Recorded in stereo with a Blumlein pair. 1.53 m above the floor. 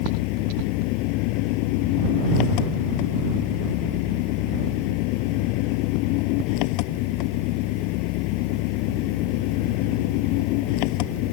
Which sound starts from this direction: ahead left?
An engine running, at 0.0 s.